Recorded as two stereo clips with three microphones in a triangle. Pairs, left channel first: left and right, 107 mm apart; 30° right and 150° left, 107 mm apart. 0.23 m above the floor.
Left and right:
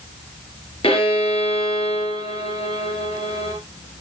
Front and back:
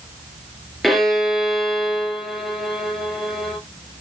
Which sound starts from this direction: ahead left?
A violin, at 0.8 s.